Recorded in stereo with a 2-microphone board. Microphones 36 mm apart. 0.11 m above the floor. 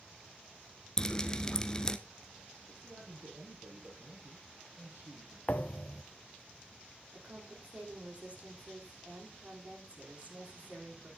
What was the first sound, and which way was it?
Dripping, 20° left (ahead or behind).